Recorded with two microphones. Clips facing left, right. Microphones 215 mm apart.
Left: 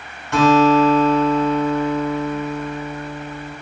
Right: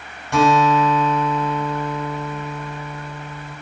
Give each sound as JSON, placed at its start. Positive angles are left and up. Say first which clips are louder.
{"t": 0.3, "sound": "a guitar", "louder": "left 3 dB", "side_deg": -15, "distance_m": 1.4}